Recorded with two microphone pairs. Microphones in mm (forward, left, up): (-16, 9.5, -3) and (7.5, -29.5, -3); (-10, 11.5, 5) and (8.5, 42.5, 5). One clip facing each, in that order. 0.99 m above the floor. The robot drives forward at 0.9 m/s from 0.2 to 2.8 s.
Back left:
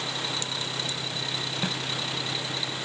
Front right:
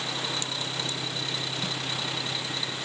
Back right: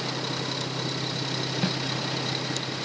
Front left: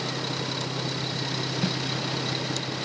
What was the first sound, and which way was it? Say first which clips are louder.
A snare drum: back left 2 dB, even; 170° left.